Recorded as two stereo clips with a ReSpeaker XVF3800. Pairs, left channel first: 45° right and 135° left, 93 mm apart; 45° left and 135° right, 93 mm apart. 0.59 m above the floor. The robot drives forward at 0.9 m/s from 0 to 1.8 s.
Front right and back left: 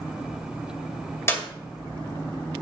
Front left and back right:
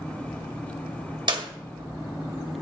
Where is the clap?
105° right, 1.8 m; by 1.5 s 110° right, 1.9 m.